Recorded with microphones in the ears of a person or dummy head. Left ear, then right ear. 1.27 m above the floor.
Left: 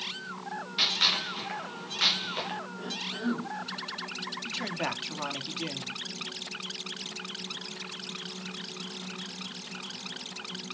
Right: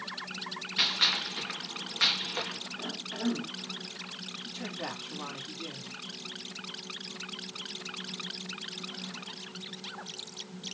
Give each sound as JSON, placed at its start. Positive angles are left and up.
{"t": 0.8, "sound": "a gunshot", "side_deg": -20, "distance_m": 4.0}
{"t": 2.8, "sound": "a cough", "side_deg": -30, "distance_m": 2.5}
{"t": 4.5, "sound": "a man speaking", "side_deg": 65, "distance_m": 2.5}